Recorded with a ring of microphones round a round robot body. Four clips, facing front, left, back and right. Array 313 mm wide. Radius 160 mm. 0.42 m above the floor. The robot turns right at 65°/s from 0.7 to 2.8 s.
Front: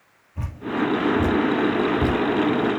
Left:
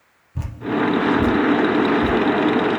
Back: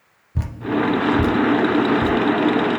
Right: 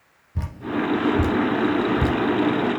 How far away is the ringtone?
I don't hear a ringtone.